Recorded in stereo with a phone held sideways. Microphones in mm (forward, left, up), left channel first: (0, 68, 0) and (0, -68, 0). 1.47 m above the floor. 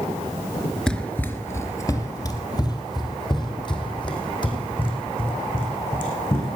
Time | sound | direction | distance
0.9 | running footsteps | 5° left (ahead or behind) | 1.5 m